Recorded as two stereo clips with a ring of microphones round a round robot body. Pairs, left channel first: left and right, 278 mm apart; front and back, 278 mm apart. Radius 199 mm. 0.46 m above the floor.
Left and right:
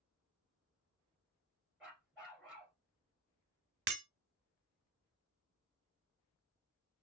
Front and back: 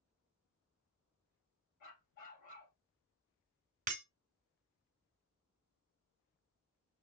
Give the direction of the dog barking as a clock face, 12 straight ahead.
12 o'clock.